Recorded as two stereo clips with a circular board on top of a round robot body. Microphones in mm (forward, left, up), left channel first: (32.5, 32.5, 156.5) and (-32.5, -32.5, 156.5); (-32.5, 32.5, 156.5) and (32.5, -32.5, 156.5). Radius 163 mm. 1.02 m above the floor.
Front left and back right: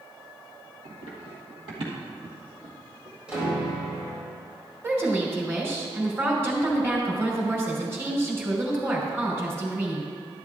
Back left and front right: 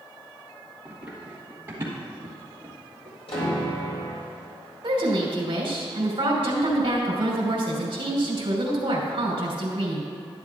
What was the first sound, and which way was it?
Running footsteps, 125° right.